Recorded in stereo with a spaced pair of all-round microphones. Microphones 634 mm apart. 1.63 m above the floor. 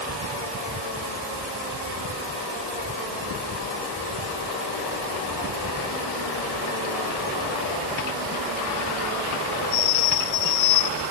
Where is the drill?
I don't hear a drill.